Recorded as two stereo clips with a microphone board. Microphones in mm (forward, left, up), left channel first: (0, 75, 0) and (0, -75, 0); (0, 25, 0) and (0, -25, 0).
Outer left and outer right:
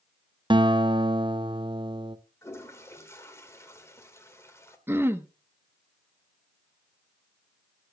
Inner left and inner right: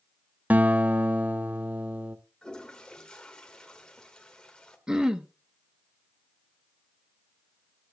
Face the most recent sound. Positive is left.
turn(degrees=-15)  # may be behind; listen again after turning